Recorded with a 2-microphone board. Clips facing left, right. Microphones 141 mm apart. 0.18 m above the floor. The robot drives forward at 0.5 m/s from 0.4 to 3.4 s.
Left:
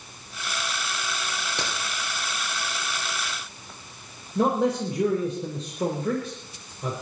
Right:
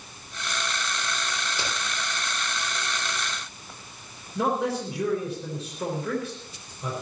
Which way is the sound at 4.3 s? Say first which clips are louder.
Left 3 dB; 35° left (ahead or behind).